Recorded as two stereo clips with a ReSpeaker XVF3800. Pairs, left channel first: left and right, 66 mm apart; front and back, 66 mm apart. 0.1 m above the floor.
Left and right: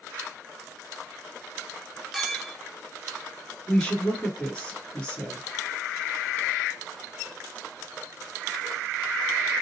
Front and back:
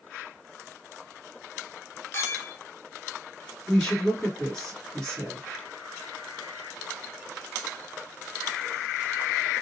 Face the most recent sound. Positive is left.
turn(degrees=65)